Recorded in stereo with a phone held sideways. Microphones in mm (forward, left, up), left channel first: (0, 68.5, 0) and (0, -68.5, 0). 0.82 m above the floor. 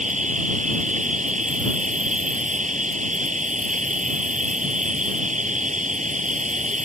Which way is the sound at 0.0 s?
65° right (ahead or behind).